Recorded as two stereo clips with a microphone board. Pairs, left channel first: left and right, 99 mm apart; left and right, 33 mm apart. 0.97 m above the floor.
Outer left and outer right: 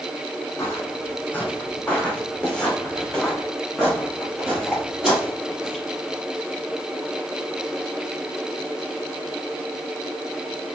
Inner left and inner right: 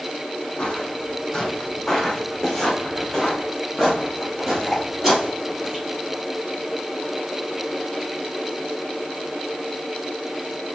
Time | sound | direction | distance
0.6 | footsteps | 30° left (ahead or behind) | 2 m